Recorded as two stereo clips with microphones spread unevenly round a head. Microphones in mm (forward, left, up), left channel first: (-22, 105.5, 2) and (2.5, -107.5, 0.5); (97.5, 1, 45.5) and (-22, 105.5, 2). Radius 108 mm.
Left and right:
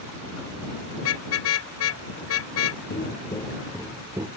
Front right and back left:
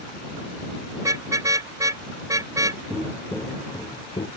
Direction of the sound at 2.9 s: 40° left.